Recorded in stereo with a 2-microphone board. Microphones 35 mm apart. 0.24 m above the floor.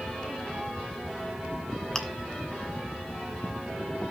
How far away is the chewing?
About 1.5 m.